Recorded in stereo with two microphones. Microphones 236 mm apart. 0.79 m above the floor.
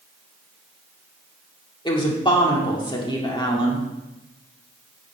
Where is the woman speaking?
20° left (ahead or behind), 2 m.